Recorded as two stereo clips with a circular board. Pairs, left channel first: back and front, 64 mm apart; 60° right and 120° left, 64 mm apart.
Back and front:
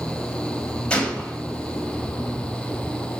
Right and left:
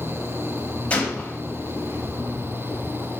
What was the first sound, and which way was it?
A gunshot, 120° right.